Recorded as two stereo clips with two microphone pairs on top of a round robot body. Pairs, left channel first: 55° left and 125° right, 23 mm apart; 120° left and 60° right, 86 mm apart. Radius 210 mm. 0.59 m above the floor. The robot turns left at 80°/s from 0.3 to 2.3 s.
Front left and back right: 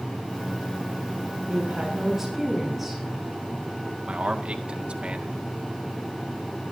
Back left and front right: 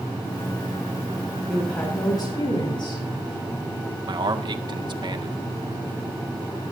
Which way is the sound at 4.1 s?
85° right.